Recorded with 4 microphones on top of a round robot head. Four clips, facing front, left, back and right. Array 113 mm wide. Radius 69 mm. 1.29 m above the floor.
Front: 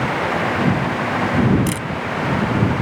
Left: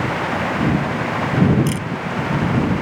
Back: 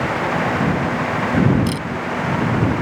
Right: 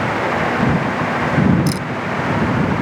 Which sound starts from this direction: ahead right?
A camera shutter, at 1.7 s.